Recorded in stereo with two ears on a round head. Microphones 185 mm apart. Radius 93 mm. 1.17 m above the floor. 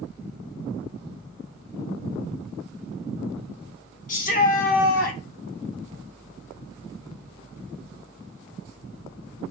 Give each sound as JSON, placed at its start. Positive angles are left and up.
{"t": 4.1, "sound": "a shout", "side_deg": 40, "distance_m": 2.5}